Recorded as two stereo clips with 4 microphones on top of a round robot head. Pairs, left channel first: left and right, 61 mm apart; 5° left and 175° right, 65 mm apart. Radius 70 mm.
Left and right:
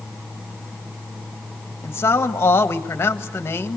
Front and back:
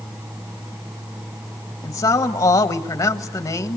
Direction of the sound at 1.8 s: 35° left.